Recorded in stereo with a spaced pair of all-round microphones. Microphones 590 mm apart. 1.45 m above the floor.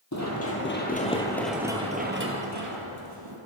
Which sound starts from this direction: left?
Running footsteps, at 0.1 s.